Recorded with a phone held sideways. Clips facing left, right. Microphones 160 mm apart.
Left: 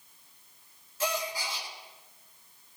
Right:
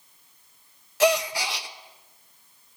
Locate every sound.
1.0 s a gasp: 75° right (ahead or behind), 0.6 m